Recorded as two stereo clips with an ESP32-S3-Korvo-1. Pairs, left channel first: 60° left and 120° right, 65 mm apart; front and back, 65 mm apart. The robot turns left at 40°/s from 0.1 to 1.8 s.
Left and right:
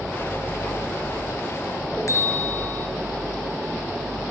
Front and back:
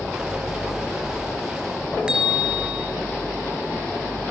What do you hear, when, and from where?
2.1 s a bell: 105° left, 3.5 m